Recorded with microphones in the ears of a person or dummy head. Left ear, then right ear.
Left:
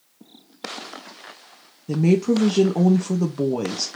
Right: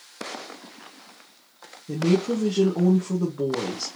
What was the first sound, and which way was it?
A woman speaking, 25° left (ahead or behind).